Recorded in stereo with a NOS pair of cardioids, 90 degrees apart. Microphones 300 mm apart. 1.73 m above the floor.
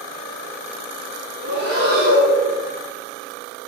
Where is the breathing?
35° right, 1.5 m.